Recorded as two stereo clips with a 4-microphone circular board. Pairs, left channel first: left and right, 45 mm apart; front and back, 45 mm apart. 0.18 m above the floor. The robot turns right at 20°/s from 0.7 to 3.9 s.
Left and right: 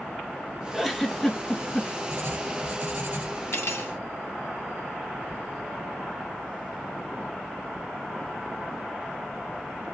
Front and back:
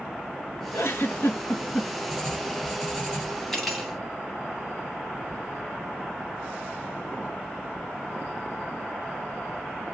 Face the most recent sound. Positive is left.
turn(degrees=95)